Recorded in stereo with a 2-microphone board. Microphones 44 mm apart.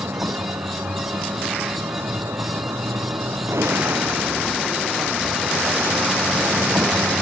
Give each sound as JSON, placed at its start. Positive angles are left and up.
{"t": 0.0, "sound": "a vehicle", "side_deg": -75}
{"t": 3.5, "sound": "a gunshot", "side_deg": -70}